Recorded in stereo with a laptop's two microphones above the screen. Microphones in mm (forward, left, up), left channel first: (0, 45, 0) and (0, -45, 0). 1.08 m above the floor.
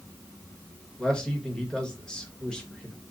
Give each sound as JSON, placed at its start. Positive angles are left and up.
{"t": 1.0, "sound": "a man speaking", "side_deg": 10, "distance_m": 1.4}